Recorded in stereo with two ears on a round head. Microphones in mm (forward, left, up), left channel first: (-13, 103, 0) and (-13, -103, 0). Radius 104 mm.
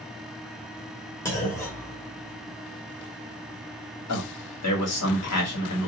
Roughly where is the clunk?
Centre.